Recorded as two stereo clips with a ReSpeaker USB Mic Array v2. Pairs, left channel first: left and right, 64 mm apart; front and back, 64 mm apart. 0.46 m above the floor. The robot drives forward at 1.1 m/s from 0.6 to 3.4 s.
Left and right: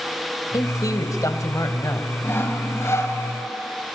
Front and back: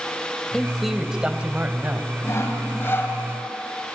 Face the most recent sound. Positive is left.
turn(degrees=60)